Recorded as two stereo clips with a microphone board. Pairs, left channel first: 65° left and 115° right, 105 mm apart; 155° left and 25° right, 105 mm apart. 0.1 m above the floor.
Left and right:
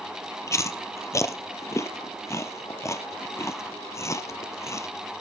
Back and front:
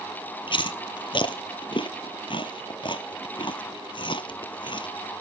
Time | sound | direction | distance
0.5 | chewing | 125° left | 0.7 m